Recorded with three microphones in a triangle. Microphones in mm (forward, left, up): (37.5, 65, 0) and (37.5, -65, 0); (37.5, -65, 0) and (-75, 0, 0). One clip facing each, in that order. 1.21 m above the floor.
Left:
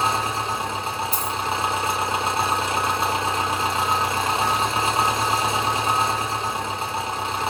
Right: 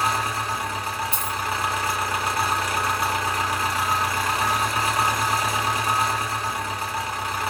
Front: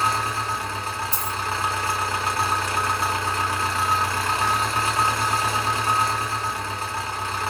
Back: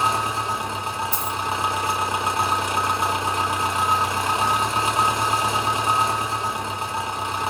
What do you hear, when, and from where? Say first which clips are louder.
0.0 s an engine running: left 1 dB, back 2 dB; 110° left, 0.9 m
1.1 s a dropped coin: left 2 dB, back 2 dB; 45° left, 1.2 m